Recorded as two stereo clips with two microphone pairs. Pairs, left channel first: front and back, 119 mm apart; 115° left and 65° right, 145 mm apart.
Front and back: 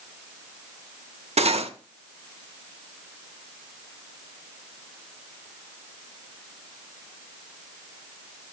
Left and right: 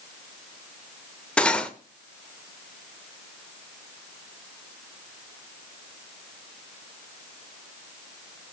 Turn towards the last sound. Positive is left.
turn(degrees=-160)